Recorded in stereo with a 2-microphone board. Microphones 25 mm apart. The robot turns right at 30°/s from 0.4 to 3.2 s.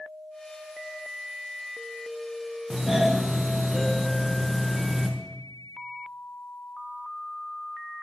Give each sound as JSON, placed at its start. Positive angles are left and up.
{"t": 2.7, "sound": "a doorbell", "side_deg": -20, "distance_m": 0.9}